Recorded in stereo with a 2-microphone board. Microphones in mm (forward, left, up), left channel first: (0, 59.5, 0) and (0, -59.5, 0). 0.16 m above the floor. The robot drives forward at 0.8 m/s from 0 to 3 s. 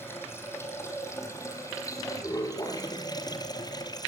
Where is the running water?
20° left (ahead or behind), 5 m; by 4.1 s 35° left (ahead or behind), 3 m.